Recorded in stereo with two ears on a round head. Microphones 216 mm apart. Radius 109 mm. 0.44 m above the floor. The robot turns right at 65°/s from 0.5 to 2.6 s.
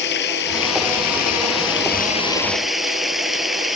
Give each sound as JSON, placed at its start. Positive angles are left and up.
{"t": 0.0, "sound": "running water", "azimuth_deg": 45}